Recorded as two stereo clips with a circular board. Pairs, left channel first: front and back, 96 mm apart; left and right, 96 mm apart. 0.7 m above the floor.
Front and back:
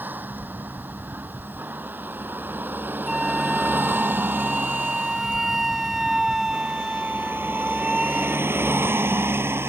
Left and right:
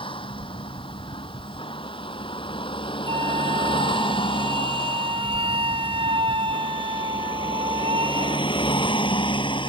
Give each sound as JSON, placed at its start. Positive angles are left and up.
{"t": 0.0, "sound": "a vehicle", "azimuth_deg": 110}
{"t": 3.1, "sound": "a flute", "azimuth_deg": -95}